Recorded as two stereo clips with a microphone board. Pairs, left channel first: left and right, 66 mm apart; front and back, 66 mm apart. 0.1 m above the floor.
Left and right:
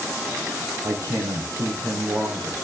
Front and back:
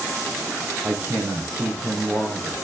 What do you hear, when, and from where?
0.8 s a man speaking: 120° right, 3.5 m